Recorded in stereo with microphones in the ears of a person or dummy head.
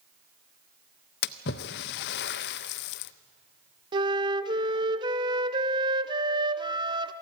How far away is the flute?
About 0.9 m.